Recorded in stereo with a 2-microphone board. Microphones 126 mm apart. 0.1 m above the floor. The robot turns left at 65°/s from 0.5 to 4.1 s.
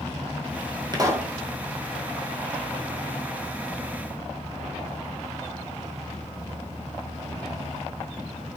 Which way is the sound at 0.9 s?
35° right (ahead or behind).